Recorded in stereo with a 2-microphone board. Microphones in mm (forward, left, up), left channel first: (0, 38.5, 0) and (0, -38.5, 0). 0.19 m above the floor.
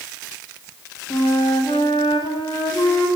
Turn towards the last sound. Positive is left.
turn(degrees=90)